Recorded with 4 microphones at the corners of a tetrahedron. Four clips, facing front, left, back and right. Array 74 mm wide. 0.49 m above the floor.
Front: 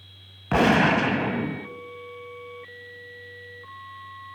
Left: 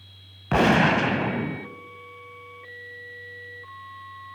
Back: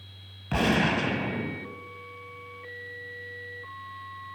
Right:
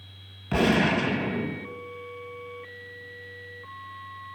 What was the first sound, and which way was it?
A gunshot, 45° left.